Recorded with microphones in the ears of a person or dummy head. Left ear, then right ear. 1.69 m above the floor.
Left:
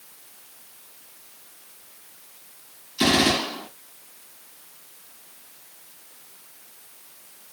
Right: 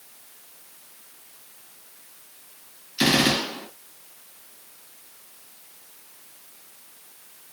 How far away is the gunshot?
About 2.5 m.